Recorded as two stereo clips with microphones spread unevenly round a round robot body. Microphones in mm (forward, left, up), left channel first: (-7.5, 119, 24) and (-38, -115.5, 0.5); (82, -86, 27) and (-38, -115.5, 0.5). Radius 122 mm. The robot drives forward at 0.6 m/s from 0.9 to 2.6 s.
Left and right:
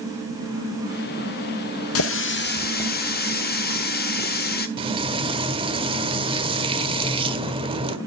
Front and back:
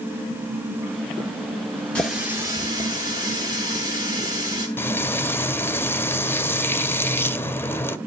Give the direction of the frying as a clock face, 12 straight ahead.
2 o'clock.